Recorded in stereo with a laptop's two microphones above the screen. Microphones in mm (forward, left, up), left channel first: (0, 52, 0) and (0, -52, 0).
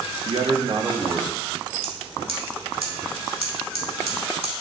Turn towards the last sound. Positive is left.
turn(degrees=-70)  # may be behind; listen again after turning